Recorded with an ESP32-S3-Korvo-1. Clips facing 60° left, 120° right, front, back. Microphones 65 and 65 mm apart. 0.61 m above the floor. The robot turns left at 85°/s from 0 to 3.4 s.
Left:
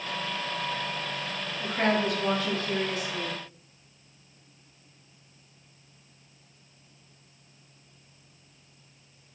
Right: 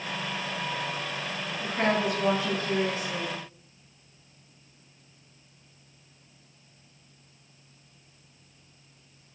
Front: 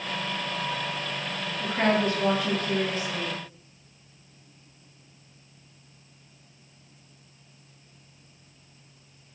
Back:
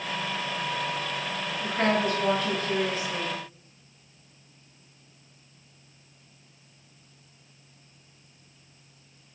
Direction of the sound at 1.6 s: 5° right.